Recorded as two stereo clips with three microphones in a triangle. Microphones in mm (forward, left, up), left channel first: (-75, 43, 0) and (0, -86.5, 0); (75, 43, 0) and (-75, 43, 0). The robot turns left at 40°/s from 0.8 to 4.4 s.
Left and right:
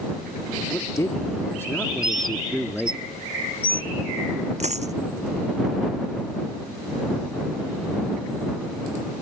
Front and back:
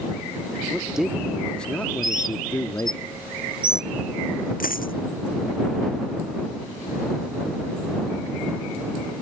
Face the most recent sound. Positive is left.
turn(degrees=-20)